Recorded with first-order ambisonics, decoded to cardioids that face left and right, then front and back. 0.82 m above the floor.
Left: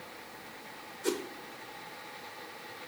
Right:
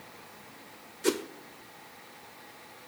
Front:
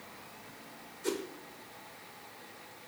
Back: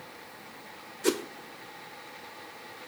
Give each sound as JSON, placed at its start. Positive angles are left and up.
{"t": 1.0, "sound": "a whoosh", "azimuth_deg": -145, "distance_m": 0.5}